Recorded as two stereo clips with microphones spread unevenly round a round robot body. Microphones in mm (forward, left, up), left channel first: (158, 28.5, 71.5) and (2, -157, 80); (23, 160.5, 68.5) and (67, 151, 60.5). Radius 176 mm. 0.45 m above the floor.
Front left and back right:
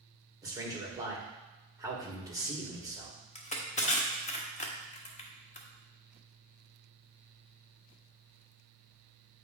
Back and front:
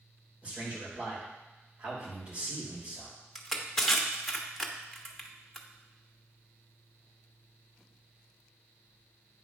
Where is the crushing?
65° left, 1.3 m.